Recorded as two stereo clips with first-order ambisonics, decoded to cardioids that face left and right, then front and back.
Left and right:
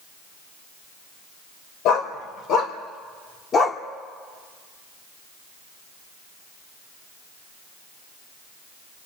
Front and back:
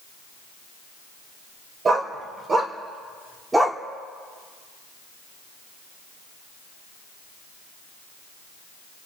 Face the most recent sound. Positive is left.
turn(degrees=100)